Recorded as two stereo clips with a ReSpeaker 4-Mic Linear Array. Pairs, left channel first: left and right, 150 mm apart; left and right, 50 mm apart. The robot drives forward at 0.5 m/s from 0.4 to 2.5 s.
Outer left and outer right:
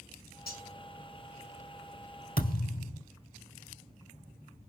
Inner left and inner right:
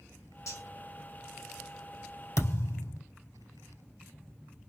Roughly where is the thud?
Left.